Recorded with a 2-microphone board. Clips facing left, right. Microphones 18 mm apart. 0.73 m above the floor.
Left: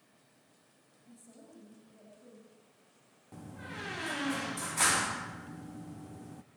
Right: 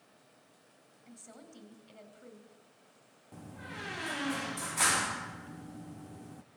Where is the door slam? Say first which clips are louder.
Left 1 dB; centre (ahead or behind), 0.6 m.